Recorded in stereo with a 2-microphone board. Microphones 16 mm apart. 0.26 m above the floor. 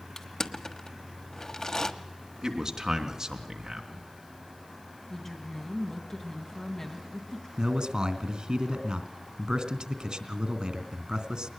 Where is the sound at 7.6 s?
55° right (ahead or behind), 2.5 m.